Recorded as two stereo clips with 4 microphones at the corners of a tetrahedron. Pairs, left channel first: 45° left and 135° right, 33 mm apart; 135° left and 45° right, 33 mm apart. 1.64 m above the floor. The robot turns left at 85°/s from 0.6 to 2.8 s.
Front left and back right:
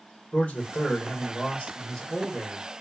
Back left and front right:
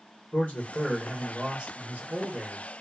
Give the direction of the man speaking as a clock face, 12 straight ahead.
9 o'clock.